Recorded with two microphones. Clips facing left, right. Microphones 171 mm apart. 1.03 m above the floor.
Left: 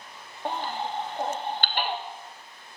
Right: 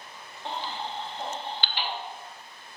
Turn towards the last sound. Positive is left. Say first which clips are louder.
# left 4 dB
turn(degrees=50)  # may be behind; listen again after turning